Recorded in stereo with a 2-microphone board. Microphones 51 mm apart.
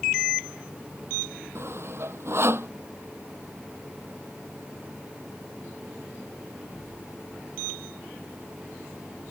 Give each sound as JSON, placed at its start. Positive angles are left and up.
{"t": 1.6, "sound": "sawing", "side_deg": -50}